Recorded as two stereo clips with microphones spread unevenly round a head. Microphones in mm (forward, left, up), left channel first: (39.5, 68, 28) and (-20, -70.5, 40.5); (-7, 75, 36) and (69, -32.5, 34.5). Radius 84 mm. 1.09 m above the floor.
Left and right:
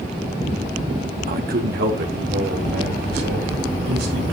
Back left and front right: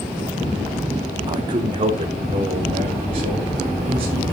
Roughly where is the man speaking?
Behind right.